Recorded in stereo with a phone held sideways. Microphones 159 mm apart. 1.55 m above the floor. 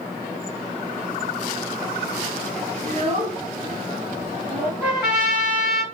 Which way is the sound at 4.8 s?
5° right (ahead or behind).